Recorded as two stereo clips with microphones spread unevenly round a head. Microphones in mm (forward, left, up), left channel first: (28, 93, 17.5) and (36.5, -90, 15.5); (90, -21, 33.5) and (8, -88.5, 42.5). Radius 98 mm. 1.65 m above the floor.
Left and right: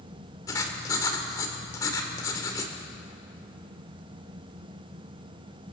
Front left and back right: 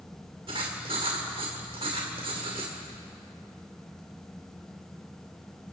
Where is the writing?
165° left, 2 m.